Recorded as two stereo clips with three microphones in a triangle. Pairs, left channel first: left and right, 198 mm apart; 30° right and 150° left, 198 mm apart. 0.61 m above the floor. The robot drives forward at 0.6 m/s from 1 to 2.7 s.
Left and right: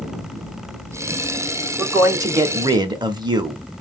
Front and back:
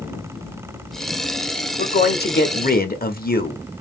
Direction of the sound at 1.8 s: 15° right.